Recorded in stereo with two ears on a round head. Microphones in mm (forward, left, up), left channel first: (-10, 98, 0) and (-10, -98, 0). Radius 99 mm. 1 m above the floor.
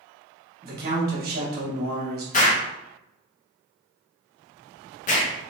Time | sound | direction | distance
0.6 | a man speaking | 45° right (ahead or behind) | 1.1 m
2.3 | an explosion | 40° left (ahead or behind) | 0.8 m